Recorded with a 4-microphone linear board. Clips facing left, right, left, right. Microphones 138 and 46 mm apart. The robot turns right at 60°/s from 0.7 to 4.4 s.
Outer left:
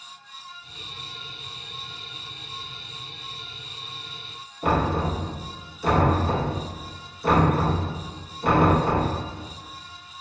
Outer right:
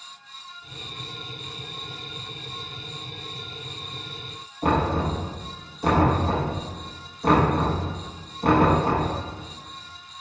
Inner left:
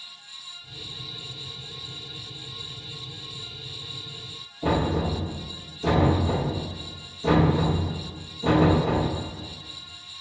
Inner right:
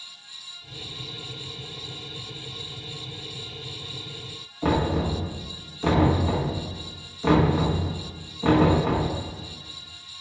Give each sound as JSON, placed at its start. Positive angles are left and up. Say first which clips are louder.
{"t": 4.6, "sound": "knocking", "louder": "outer right 1 dB, inner right 1 dB", "side_deg": -50, "distance_m": 1.1}